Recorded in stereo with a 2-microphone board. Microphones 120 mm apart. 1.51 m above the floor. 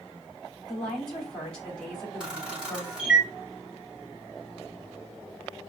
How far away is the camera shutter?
About 1.7 m.